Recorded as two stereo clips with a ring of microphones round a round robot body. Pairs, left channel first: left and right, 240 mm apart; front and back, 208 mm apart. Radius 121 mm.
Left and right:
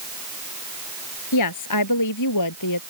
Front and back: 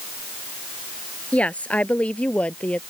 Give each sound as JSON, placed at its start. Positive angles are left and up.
{"t": 1.3, "sound": "a woman speaking", "azimuth_deg": 85}